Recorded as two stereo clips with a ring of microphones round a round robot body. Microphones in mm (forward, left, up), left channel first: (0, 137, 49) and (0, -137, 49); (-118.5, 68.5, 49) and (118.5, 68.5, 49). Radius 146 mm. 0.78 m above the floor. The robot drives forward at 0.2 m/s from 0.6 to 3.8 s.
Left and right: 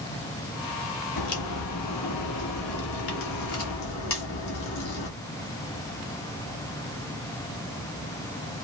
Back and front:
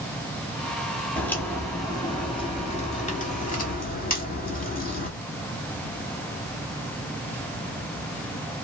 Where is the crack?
95° left, 0.9 m; by 5.1 s 130° left, 1.1 m.